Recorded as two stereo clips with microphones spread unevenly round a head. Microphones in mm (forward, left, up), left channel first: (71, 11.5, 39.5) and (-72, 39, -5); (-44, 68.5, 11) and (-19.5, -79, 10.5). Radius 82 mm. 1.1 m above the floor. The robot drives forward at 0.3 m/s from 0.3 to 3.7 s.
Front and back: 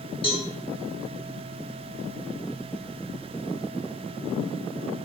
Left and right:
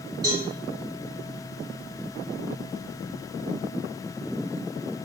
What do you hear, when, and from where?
0.2 s a cowbell: 25° right, 1.1 m